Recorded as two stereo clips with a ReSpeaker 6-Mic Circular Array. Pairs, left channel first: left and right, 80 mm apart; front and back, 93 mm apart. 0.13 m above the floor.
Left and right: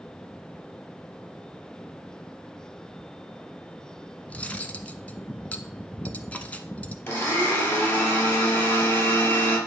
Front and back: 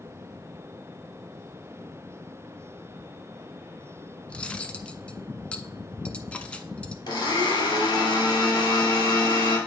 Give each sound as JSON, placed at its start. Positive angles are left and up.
{"t": 4.3, "sound": "cutlery clinking", "azimuth_deg": 50, "distance_m": 0.6}
{"t": 7.1, "sound": "a blender", "azimuth_deg": 35, "distance_m": 2.5}